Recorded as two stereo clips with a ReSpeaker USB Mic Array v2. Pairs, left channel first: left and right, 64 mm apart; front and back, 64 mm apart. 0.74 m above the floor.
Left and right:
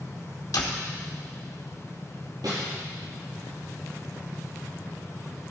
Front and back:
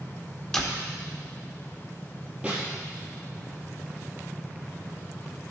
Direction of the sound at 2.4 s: 105° right.